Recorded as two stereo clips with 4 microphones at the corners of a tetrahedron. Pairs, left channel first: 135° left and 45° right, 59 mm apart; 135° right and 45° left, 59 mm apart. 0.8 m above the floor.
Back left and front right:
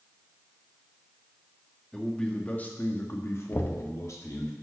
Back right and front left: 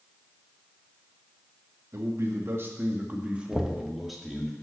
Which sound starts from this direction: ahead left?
A man speaking, at 1.9 s.